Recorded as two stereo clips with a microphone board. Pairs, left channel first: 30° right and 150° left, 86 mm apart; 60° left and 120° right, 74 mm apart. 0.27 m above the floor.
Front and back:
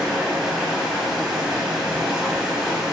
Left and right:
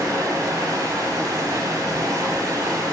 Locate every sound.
0.0 s running water: 130° right, 0.8 m